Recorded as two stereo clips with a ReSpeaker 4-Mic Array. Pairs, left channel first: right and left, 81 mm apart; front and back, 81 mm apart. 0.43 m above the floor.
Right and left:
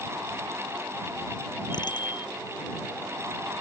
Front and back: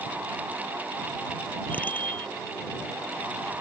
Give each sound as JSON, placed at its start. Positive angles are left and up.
{"t": 1.7, "sound": "a bicycle bell", "azimuth_deg": -70}